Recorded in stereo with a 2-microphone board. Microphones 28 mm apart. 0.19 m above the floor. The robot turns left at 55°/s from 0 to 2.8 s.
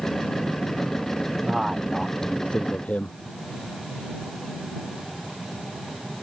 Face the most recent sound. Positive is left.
turn(degrees=130)